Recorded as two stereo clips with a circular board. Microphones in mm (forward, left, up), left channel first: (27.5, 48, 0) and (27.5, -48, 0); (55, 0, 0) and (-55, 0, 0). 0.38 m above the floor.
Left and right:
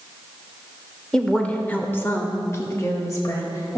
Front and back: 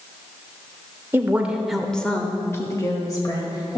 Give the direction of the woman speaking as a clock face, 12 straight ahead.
7 o'clock.